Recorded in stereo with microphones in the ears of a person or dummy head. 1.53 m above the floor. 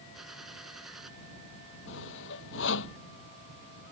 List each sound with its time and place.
0.1 s a gunshot: 5° right (ahead or behind)
1.9 s sawing: 75° left (ahead or behind)